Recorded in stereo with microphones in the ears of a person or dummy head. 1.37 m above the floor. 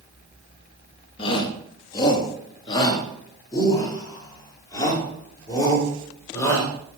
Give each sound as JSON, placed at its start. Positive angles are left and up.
{"t": 1.2, "sound": "a shout", "side_deg": 30, "distance_m": 2.5}